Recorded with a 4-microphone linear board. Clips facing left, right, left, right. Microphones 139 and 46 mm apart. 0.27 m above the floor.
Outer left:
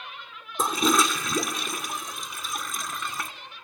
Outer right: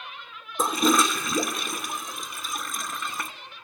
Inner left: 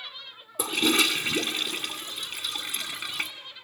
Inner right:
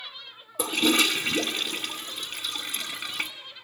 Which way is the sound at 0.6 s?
Centre (ahead or behind).